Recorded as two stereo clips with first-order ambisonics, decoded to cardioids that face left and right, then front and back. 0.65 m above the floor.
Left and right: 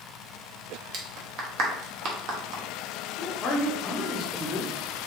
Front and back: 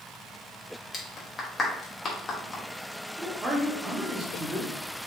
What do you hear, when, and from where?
0.9 s a clap: 70° right, 1.0 m
3.2 s a man speaking: 120° left, 1.0 m